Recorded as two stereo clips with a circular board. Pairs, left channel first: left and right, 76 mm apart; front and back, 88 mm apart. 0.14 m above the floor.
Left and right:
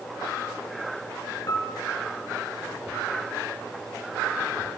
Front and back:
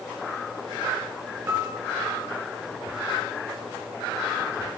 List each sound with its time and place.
1.5 s a piano: 120° left, 0.9 m